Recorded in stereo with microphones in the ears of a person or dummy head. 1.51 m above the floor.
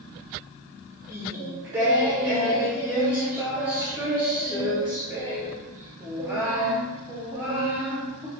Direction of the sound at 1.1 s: 5° right (ahead or behind).